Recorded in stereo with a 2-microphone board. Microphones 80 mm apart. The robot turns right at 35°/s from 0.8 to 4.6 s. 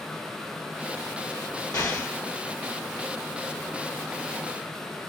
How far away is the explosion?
About 1.1 m.